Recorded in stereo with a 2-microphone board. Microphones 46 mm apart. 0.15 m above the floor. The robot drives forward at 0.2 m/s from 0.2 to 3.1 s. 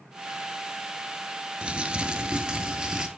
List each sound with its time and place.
1.6 s crumpling: 25° right (ahead or behind), 0.7 m; by 3.1 s 15° right (ahead or behind), 0.9 m